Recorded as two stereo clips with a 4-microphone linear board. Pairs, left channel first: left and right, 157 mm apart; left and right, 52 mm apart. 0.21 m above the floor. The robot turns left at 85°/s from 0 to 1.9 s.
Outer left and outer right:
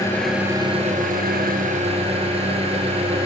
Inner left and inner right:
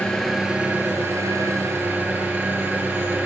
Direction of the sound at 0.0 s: 25° left.